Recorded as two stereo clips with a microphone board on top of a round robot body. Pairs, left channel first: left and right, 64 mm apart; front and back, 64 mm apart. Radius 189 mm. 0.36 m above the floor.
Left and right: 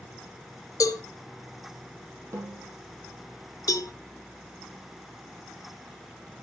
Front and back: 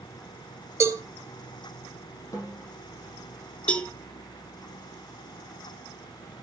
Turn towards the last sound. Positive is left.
turn(degrees=70)